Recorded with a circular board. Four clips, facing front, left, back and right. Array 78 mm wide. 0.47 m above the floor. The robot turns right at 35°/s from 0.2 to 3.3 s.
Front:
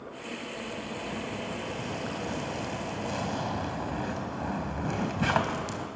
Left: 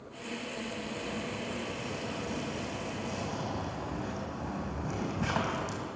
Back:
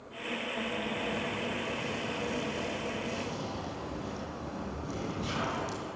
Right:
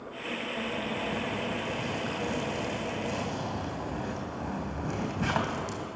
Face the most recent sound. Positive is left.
turn(degrees=-15)